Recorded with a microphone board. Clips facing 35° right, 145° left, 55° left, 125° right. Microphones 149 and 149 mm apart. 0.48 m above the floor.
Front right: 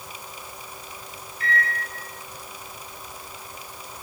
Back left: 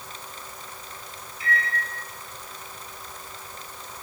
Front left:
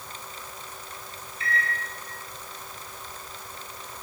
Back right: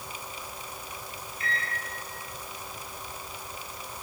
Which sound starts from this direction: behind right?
A microwave, at 1.4 s.